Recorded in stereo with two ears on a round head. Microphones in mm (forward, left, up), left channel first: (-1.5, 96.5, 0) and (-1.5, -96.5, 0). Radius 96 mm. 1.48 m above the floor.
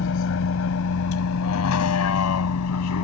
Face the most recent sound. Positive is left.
turn(degrees=90)